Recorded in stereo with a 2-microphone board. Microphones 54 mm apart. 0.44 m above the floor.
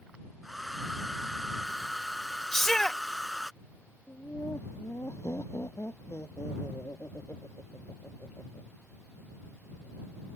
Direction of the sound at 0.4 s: Centre (ahead or behind).